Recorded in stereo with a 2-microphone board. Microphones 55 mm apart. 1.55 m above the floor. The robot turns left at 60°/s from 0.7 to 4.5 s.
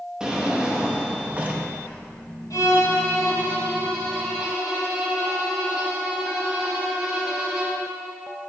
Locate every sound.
0.2 s a drawer: 15° right (ahead or behind), 0.9 m; by 1.7 s 25° right (ahead or behind), 0.9 m
2.5 s a violin: 100° left, 2.5 m; by 7.8 s 20° right, 2.5 m